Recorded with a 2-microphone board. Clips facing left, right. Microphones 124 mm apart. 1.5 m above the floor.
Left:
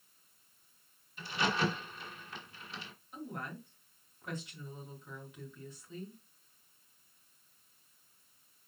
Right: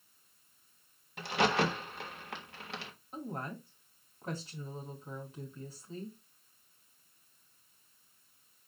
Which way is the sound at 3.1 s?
35° right (ahead or behind).